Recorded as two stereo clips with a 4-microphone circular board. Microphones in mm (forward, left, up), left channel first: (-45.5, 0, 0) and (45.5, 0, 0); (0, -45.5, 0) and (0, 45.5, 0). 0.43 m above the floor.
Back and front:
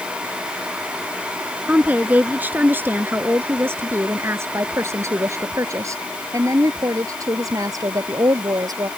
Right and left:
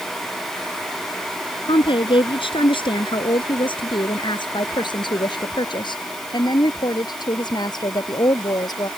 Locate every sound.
1.7 s a woman speaking: 75° right; by 8.9 s 50° right